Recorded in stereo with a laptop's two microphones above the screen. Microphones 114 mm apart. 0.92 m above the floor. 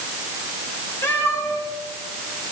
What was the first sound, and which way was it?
A cat meowing, 20° left (ahead or behind).